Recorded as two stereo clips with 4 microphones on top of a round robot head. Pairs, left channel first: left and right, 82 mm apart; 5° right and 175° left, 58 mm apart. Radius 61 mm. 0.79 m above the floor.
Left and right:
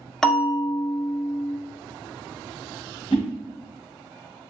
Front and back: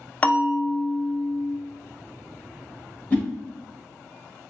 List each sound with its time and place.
0.2 s a bell: 20° left, 0.6 m
3.1 s a whoosh: 60° left, 1.5 m